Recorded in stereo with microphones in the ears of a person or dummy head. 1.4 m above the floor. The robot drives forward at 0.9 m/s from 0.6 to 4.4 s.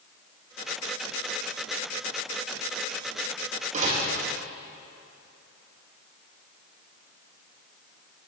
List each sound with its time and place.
3.7 s a door slam: 45° right (ahead or behind), 1.5 m; by 4.0 s 40° right (ahead or behind), 1.7 m